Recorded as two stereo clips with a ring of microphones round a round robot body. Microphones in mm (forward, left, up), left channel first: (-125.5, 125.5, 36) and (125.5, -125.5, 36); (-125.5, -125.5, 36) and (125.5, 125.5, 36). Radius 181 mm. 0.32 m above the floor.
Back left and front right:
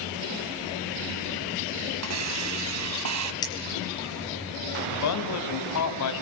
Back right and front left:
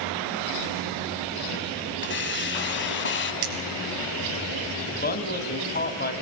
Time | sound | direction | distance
2.0 | a hiss | 80° right | 2.5 m
3.4 | cutlery clinking | 55° left | 5 m
4.9 | a man speaking | 165° left | 2.5 m